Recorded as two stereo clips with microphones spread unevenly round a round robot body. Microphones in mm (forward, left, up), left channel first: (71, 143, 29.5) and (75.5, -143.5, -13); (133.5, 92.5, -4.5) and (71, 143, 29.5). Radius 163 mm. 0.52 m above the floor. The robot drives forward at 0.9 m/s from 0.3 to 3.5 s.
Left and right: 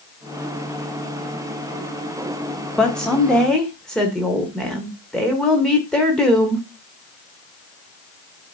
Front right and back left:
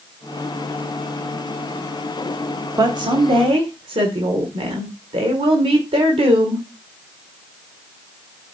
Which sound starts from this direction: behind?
A woman speaking, at 2.8 s.